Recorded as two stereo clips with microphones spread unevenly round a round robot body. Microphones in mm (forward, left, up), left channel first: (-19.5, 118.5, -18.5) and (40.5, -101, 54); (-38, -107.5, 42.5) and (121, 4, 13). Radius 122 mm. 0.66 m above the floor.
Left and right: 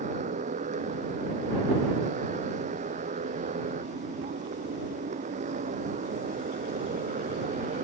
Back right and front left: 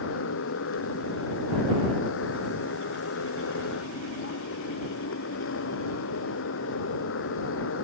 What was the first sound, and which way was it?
A motorcycle, 135° right.